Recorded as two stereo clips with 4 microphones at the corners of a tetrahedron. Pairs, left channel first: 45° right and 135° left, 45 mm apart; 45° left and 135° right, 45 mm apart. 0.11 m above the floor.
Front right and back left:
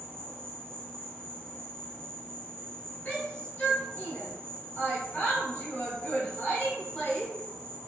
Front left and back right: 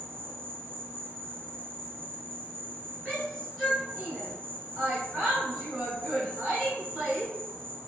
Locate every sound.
0.0 s an insect: 110° right, 0.7 m
3.0 s a shout: 40° right, 1.4 m